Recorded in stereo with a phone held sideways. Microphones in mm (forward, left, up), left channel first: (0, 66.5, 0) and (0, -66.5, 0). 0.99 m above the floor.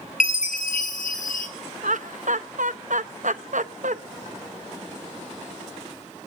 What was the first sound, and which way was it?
A chime, 85° left.